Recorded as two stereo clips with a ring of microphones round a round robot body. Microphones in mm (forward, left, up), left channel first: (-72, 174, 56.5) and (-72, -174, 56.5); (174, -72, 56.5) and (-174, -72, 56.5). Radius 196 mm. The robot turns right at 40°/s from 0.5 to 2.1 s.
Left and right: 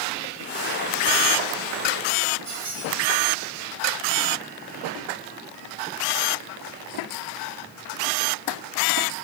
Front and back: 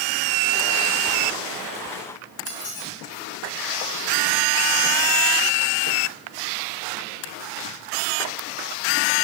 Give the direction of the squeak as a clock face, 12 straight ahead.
12 o'clock.